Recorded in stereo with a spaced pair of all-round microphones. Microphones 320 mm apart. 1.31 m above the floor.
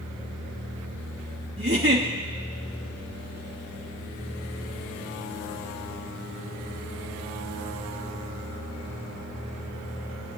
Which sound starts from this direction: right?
A giggle, at 1.6 s.